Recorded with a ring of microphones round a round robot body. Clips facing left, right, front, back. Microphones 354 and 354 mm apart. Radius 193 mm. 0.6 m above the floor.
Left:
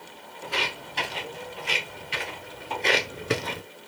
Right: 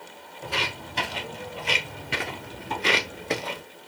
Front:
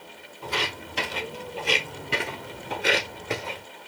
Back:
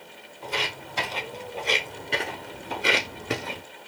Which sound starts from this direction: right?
Footsteps, at 0.4 s.